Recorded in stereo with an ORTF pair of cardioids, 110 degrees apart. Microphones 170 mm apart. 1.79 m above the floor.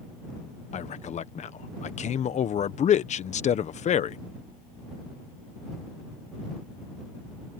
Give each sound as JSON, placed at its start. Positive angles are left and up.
{"t": 0.7, "sound": "a man speaking", "azimuth_deg": 45}